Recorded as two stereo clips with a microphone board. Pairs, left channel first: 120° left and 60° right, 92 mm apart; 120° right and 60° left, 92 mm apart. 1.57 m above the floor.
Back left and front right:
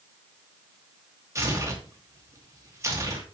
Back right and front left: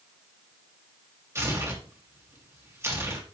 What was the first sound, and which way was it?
Tearing paper, straight ahead.